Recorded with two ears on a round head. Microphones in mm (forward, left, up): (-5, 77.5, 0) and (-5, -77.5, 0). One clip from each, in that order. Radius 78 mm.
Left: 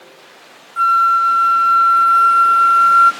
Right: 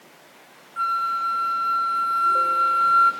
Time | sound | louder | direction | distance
0.8 | a flute | left 11 dB | 35° left (ahead or behind) | 0.7 m